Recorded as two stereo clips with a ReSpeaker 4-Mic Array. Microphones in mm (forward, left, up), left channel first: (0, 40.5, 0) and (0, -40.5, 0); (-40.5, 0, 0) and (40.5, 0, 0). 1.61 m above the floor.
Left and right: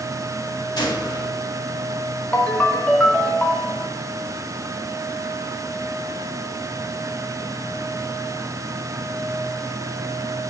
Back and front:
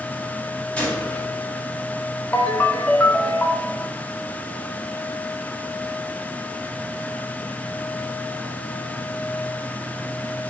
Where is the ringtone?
140° left, 0.9 m.